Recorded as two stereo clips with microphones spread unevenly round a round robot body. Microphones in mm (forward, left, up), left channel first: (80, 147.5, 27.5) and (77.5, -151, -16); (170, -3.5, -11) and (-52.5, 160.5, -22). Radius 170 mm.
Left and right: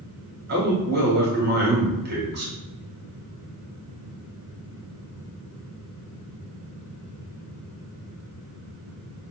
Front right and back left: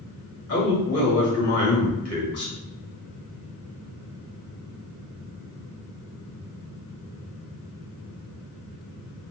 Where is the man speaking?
55° right, 1.6 m.